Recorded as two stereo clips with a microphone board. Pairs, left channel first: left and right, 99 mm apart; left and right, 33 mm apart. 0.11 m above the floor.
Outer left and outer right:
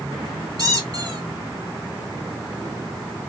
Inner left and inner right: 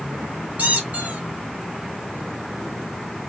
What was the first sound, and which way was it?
A squeak, 40° right (ahead or behind).